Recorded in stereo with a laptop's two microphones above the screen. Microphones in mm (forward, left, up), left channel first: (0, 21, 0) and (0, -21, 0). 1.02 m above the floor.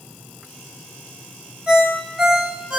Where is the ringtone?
25° right (ahead or behind), 1.5 m.